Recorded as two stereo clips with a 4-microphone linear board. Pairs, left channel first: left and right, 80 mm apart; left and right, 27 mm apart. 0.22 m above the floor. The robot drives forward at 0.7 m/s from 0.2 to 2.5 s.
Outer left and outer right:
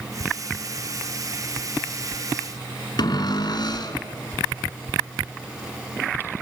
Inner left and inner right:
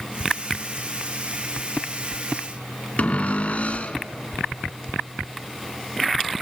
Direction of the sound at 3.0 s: 60° left (ahead or behind).